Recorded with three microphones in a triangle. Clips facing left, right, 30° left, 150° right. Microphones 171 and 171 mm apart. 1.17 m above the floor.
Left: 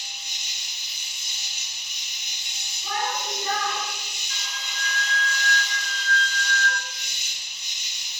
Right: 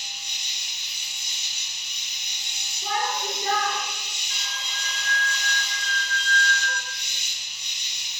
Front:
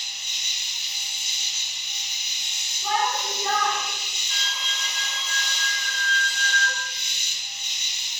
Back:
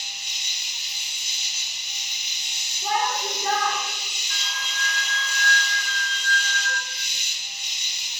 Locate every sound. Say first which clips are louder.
0.0 s an insect: even, back 2 dB; 160° left, 1.9 m
2.8 s a shout: right 1 dB, even; 100° right, 1.4 m
4.3 s a flute: even, even; 30° right, 0.8 m